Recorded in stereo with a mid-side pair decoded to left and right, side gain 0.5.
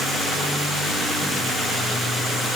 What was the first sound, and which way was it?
Only background noise.